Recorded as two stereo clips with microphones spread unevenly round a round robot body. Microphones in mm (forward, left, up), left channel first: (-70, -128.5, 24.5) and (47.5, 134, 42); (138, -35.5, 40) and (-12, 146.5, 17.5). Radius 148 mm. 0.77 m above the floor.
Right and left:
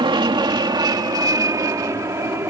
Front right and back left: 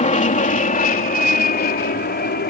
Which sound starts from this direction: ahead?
An aircraft, at 0.0 s.